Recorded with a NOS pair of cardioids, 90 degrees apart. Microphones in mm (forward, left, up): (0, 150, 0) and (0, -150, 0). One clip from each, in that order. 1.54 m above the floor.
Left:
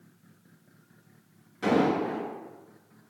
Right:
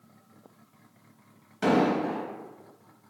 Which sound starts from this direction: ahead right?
An explosion, at 1.6 s.